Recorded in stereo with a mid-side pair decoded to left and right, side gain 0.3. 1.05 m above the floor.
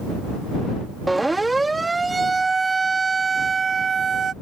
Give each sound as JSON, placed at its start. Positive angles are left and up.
{"t": 1.1, "sound": "a siren", "azimuth_deg": -20}